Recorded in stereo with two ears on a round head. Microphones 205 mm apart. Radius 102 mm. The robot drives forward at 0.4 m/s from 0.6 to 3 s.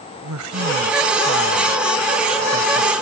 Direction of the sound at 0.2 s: 80° right.